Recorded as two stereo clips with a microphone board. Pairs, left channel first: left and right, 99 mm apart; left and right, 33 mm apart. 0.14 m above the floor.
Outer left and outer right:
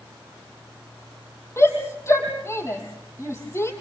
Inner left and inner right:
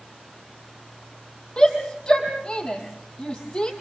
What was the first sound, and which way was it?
A shout, 25° left (ahead or behind).